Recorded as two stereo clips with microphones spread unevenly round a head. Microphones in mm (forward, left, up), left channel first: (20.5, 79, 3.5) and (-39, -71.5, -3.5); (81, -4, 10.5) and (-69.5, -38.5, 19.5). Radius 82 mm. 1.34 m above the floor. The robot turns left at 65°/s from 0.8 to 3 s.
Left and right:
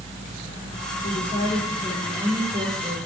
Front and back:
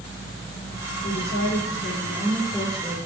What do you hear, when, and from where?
1.0 s a woman speaking: 45° left, 4 m; by 3.0 s 80° right, 4 m